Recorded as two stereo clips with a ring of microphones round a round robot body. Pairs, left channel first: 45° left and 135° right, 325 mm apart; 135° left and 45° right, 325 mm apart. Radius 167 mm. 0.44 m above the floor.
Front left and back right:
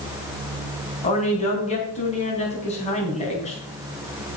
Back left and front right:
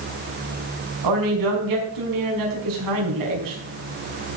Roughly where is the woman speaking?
Ahead right.